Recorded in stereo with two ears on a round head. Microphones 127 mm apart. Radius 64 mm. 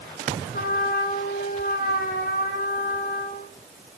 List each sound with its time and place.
0.5 s a trumpet: 70° left (ahead or behind), 5.5 m